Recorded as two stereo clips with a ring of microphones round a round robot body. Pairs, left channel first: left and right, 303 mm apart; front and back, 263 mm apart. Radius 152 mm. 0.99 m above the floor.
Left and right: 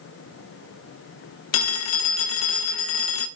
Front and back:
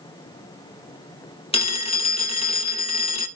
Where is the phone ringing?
70° left, 1.7 m.